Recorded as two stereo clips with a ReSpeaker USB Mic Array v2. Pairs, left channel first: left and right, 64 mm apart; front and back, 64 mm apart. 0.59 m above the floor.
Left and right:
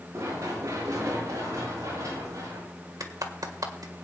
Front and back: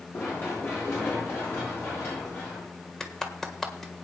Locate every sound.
0.1 s running footsteps: 50° right, 8 m
3.0 s a clap: 80° right, 1.5 m